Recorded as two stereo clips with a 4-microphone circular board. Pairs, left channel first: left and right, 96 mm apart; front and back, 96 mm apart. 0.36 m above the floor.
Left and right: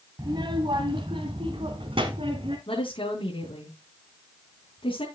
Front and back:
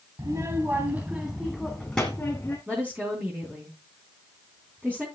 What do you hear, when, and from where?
0.2 s a child speaking: 130° right, 1.4 m; by 2.6 s 75° right, 2 m
2.7 s a woman speaking: 110° left, 4 m